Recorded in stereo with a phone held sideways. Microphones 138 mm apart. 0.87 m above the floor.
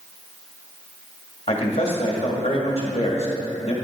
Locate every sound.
1.5 s a man speaking: 50° left (ahead or behind), 1.8 m